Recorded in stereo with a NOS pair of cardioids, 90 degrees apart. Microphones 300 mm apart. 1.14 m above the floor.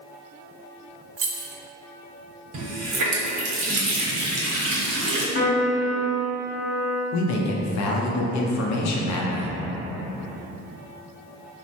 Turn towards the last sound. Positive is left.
turn(degrees=65)